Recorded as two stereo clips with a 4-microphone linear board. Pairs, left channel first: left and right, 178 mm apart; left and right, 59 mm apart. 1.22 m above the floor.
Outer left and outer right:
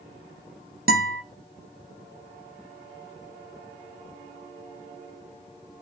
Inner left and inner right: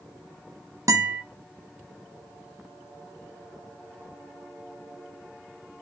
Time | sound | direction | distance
0.9 | a guitar | 55° right (ahead or behind) | 0.8 m